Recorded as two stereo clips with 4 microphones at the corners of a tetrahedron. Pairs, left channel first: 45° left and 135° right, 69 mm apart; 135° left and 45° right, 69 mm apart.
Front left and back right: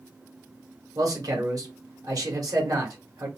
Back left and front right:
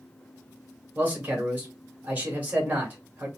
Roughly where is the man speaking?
Right.